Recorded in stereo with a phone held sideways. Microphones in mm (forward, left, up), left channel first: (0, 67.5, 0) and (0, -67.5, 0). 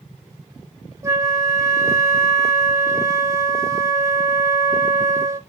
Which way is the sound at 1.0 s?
20° right (ahead or behind).